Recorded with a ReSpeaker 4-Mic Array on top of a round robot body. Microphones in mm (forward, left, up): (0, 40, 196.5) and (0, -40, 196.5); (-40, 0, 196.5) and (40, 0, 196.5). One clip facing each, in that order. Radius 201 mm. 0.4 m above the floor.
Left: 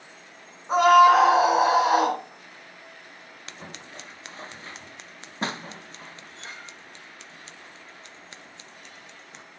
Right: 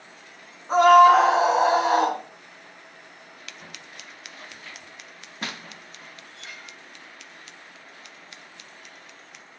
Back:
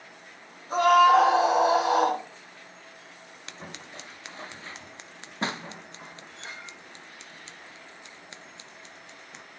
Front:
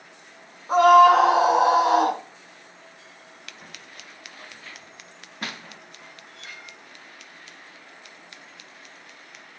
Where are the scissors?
135° left, 0.6 m.